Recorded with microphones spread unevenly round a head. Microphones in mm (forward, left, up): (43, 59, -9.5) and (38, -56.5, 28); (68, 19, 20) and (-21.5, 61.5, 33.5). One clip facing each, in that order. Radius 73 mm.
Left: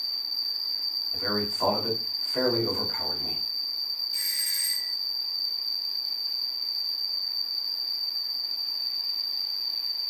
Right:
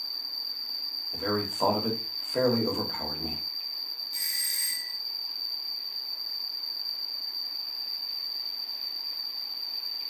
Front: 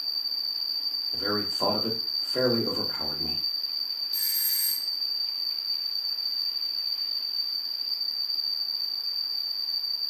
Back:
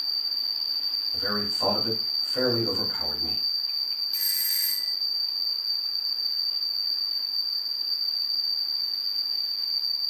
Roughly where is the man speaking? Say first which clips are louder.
Right 1 dB, front 2 dB; ahead.